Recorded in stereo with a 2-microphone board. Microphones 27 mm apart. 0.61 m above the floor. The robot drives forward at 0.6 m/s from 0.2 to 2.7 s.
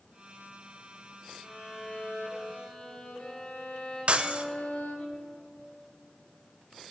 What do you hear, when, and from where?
1.4 s a violin: 55° left (ahead or behind), 2.0 m; by 5.1 s 70° left (ahead or behind), 1.7 m
4.1 s breaking glass: 45° right (ahead or behind), 0.6 m